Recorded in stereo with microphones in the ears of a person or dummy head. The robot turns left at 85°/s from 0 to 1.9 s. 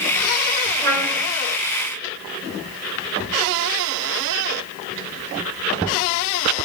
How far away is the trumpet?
About 0.8 m.